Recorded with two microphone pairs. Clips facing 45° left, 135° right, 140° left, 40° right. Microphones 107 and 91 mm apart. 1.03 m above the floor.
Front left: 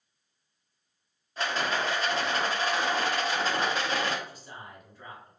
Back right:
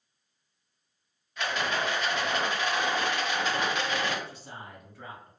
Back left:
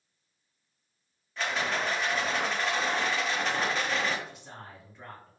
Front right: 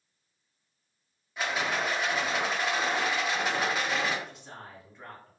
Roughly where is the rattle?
Ahead left.